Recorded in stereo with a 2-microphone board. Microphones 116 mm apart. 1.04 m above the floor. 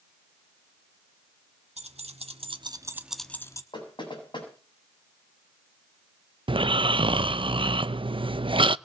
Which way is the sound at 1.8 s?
75° right (ahead or behind).